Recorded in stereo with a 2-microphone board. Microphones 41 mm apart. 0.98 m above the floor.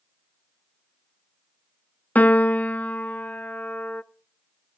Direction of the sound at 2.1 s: 35° left (ahead or behind).